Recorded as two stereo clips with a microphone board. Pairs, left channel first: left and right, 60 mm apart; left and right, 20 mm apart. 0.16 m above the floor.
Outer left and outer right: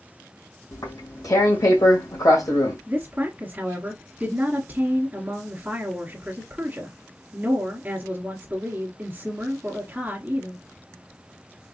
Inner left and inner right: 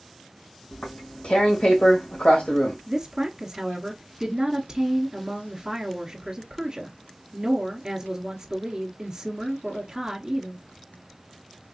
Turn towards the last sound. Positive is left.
turn(degrees=-30)  # may be behind; listen again after turning